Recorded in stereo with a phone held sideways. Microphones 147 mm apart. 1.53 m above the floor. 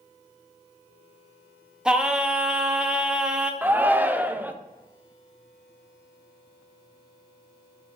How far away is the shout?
About 0.7 m.